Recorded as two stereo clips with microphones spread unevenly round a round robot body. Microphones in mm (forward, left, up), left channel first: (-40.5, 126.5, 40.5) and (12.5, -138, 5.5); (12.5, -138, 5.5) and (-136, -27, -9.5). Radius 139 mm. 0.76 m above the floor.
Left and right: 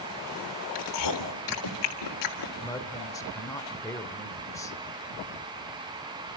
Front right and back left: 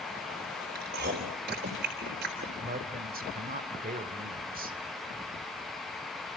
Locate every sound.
0.8 s chewing: 95° left, 3.5 m
2.6 s a woman speaking: straight behind, 2.5 m